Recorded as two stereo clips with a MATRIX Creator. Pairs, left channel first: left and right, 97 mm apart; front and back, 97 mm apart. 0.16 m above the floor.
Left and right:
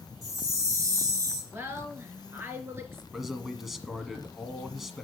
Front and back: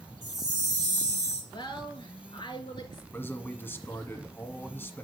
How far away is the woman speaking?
About 2 m.